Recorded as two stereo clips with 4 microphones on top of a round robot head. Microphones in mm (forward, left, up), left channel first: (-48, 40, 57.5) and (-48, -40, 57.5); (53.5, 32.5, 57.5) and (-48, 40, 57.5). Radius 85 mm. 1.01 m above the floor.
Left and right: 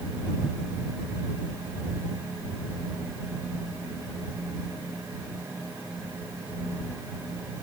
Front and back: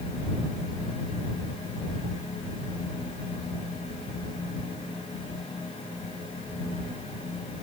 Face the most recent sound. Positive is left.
No sound to turn to.